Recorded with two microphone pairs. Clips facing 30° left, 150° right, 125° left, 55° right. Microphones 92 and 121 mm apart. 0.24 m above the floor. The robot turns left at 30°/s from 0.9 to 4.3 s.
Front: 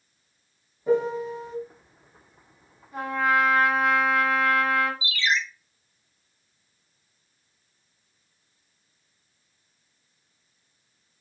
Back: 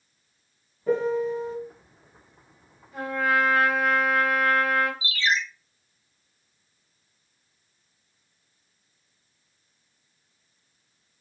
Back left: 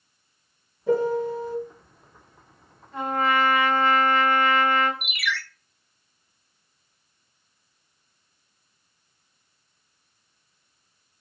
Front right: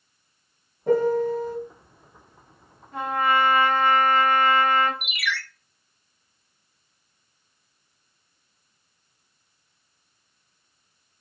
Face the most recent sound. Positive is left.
turn(degrees=-140)